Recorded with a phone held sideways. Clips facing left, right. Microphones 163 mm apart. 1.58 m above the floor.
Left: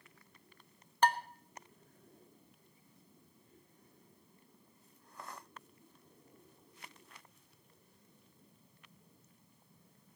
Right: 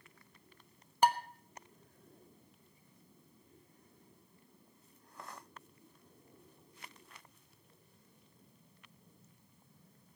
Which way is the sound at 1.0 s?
10° right (ahead or behind).